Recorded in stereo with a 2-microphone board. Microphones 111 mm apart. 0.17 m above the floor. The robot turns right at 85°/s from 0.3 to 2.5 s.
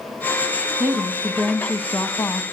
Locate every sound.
0.8 s a woman speaking: 10° right (ahead or behind), 1.0 m; by 2.4 s 20° left (ahead or behind), 1.0 m